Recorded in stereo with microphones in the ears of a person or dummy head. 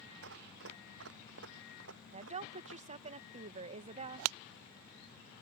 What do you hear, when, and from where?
0.2 s running footsteps: 70° right (ahead or behind); by 3.1 s 75° right (ahead or behind)
2.1 s a woman speaking: 45° right (ahead or behind)